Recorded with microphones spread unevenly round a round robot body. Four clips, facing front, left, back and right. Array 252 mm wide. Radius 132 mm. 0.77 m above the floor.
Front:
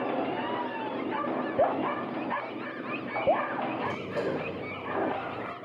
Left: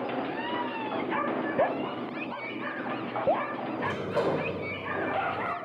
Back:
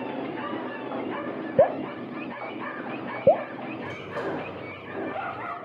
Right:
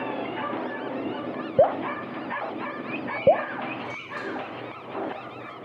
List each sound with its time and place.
1.6 s dripping: 145° right
3.8 s a sliding door: 60° left